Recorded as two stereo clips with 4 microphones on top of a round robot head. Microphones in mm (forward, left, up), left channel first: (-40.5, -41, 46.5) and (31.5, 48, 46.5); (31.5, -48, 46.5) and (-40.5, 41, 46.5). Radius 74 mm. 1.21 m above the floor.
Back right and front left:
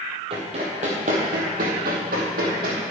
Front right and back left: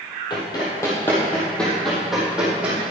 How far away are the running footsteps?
About 2.5 m.